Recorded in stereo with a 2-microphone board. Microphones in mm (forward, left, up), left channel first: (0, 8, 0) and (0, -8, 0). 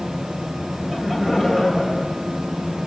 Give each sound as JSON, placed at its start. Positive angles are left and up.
{"t": 0.8, "sound": "laughter", "side_deg": -25, "distance_m": 6.0}